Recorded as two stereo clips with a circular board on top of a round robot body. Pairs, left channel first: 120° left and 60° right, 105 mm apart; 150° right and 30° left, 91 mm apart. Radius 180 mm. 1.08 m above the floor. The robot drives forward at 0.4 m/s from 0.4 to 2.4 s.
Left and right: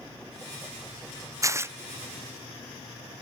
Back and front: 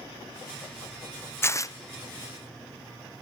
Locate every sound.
1.4 s tearing paper: 100° right, 0.7 m; by 1.8 s 120° right, 0.7 m